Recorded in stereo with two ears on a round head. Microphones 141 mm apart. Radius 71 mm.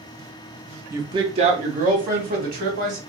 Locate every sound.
0.9 s a woman speaking: 15° right (ahead or behind), 0.6 m; by 3.0 s 65° right (ahead or behind), 1.8 m